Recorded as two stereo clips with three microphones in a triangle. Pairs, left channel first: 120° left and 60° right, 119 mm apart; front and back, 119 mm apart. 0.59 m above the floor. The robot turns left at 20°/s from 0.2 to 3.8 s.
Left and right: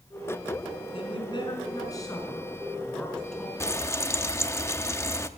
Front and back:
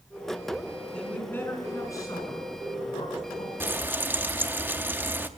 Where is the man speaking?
80° left, 5.5 m; by 3.5 s 30° left, 5.5 m.